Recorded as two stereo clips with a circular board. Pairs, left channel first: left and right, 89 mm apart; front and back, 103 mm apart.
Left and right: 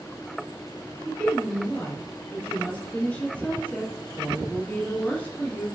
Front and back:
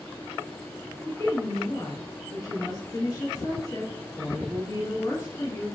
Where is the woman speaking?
25° left, 1.7 m.